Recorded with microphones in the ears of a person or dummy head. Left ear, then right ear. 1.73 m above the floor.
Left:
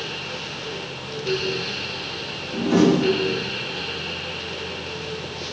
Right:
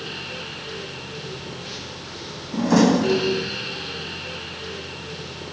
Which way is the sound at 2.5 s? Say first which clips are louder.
Even; 65° right (ahead or behind).